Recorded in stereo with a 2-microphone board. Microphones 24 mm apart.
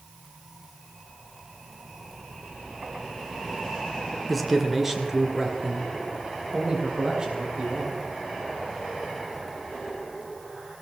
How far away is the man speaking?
About 1.9 m.